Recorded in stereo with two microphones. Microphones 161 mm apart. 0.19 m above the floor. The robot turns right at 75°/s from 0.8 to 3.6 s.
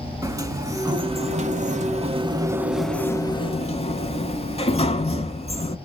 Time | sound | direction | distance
0.2 | a sliding door | 150° right | 0.6 m